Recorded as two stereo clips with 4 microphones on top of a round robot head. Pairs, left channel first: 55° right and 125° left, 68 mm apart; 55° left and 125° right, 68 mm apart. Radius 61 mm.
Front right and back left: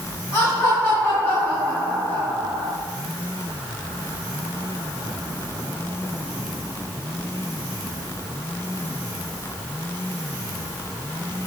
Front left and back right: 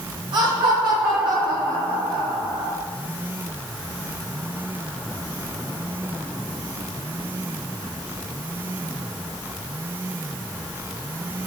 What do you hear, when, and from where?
0.3 s laughter: 120° right, 4.5 m; by 2.7 s 125° right, 6.5 m